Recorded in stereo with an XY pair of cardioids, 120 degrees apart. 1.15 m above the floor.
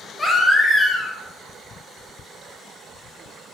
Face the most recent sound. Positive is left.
turn(degrees=20)